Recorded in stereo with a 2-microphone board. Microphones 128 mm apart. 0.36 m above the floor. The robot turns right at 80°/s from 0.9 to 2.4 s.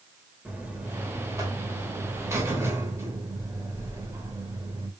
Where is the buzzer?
160° right, 0.9 m; by 4.9 s 40° right, 0.9 m.